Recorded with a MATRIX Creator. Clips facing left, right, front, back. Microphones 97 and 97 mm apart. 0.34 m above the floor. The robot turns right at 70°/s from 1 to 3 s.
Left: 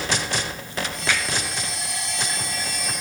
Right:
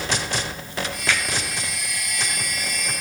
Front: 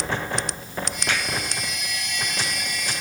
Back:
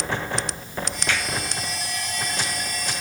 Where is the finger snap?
15° left, 2 m; by 1.2 s 25° left, 2 m.